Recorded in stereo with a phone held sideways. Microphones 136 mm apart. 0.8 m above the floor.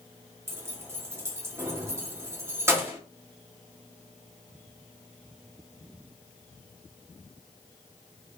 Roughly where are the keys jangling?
Centre.